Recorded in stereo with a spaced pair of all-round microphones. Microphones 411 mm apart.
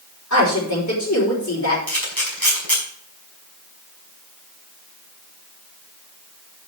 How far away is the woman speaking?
About 4.5 m.